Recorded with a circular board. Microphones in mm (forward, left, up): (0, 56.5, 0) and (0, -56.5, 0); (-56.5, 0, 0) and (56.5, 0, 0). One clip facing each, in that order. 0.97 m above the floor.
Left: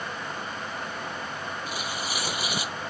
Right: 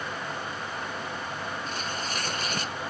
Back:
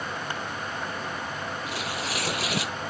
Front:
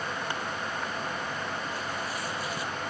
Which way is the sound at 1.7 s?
170° left.